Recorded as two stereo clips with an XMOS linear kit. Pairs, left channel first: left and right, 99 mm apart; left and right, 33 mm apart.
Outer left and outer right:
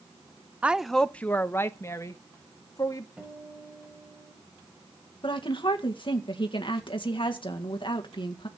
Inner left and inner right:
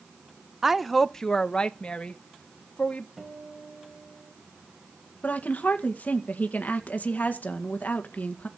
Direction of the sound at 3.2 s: 10° right (ahead or behind).